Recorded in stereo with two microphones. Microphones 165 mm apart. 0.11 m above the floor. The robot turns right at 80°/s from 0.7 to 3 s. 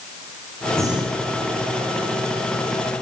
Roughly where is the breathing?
Behind.